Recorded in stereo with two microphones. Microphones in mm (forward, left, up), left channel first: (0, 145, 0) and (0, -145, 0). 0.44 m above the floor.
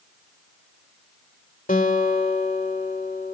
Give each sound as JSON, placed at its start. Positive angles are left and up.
{"t": 1.7, "sound": "a guitar", "side_deg": 30, "distance_m": 1.6}